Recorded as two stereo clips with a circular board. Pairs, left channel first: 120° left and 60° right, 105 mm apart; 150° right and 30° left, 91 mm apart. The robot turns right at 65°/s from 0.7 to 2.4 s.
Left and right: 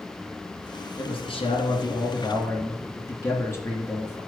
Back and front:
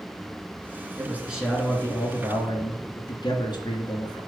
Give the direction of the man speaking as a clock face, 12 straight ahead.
9 o'clock.